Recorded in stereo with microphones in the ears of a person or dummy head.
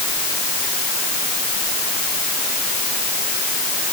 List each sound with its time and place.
Only background noise.